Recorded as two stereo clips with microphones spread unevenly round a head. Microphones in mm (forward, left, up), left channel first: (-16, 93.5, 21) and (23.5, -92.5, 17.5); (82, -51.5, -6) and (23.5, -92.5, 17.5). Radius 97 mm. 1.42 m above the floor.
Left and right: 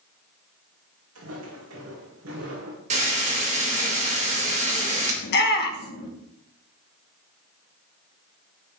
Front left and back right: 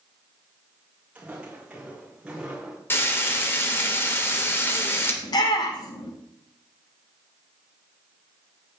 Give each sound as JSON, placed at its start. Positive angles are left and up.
{"t": 1.1, "sound": "footsteps", "azimuth_deg": -75, "distance_m": 5.5}
{"t": 2.9, "sound": "frying", "azimuth_deg": -25, "distance_m": 3.0}
{"t": 5.2, "sound": "a shout", "azimuth_deg": 70, "distance_m": 2.0}